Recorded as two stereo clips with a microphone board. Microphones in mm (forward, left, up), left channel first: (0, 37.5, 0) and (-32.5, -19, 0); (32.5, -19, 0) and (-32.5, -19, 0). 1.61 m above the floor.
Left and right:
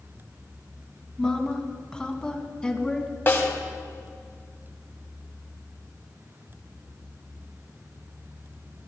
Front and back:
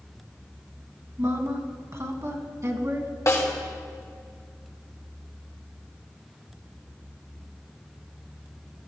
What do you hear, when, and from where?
1.2 s a woman speaking: 140° left, 2 m
3.3 s a snare drum: 15° left, 2 m